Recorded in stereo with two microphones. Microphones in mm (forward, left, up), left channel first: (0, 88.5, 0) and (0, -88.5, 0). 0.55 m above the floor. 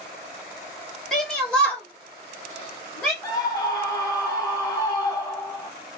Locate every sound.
1.1 s a shout: centre (ahead or behind), 1.4 m; by 3.1 s 10° left (ahead or behind), 1.3 m
3.2 s a scream: 20° left (ahead or behind), 1.0 m